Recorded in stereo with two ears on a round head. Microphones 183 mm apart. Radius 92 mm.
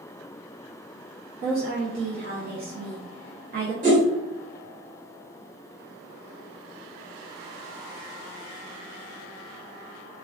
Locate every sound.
1.4 s a woman speaking: 45° right (ahead or behind), 0.7 m
3.8 s a whoosh: 40° right (ahead or behind), 1.2 m